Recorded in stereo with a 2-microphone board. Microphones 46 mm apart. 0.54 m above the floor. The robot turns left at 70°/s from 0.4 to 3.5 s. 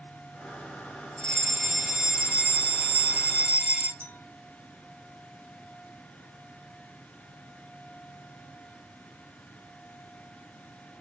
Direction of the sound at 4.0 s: 50° left (ahead or behind).